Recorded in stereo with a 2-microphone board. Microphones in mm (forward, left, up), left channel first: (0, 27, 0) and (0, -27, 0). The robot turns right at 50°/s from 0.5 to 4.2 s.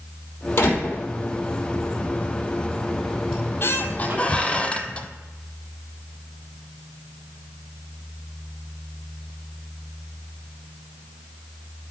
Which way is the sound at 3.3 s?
115° left.